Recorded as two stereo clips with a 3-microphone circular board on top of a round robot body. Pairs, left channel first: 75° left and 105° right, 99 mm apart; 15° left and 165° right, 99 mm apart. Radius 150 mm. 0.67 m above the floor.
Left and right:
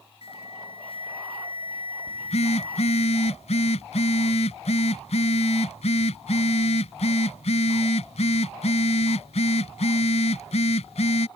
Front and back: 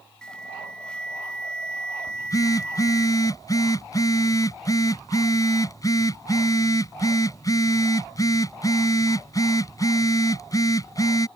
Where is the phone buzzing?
70° left.